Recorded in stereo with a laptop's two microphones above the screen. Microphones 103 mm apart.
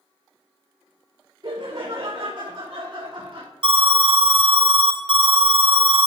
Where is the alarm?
50° right (ahead or behind), 1.1 m.